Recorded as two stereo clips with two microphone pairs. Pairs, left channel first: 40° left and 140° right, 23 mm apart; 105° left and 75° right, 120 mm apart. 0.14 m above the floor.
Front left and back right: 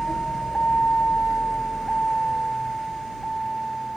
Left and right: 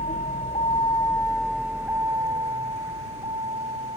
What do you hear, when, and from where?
0.0 s a vehicle: 90° left; by 4.0 s 35° right